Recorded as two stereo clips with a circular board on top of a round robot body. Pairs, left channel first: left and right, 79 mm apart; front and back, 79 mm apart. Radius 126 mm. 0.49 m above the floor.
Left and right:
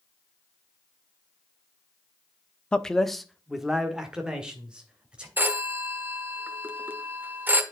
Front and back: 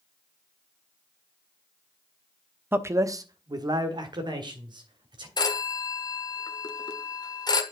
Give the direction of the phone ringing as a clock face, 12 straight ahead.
1 o'clock.